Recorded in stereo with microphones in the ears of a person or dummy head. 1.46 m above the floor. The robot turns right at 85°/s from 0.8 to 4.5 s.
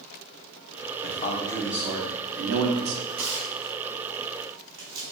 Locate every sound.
1.0 s a man speaking: 130° left, 0.7 m; by 3.0 s 65° right, 0.7 m
3.1 s tearing paper: 40° right (ahead or behind), 1.2 m; by 5.0 s 20° right (ahead or behind), 1.2 m